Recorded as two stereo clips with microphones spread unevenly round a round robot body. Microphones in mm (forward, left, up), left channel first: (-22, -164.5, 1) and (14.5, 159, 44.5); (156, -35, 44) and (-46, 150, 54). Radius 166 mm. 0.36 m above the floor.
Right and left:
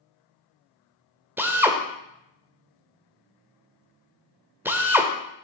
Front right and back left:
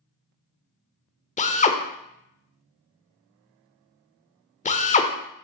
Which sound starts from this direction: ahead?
A drill, at 1.4 s.